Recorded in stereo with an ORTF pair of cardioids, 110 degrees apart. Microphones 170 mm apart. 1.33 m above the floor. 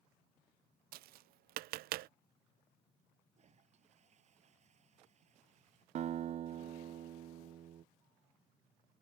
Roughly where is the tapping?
Right.